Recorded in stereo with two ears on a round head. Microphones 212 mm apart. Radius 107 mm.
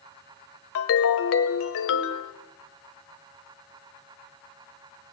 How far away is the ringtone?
About 1.2 m.